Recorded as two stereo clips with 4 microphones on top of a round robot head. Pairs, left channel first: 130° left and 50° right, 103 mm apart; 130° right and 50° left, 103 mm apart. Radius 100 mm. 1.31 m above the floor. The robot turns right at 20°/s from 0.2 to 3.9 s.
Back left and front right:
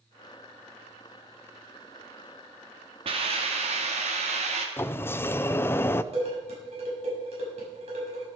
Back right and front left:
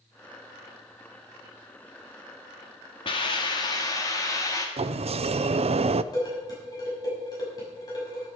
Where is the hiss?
90° right, 1.7 m; by 4.7 s 70° right, 1.7 m.